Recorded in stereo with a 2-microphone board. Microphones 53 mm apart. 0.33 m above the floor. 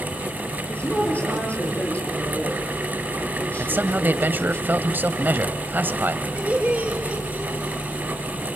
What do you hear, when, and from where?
0.7 s a woman speaking: 30° left (ahead or behind), 8 m
3.6 s a man speaking: 40° right (ahead or behind), 1.3 m
6.4 s laughter: 25° right (ahead or behind), 9 m